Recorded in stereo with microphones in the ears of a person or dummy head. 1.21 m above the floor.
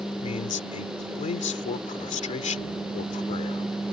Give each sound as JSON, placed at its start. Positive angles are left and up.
{"t": 0.2, "sound": "a man speaking", "side_deg": 35}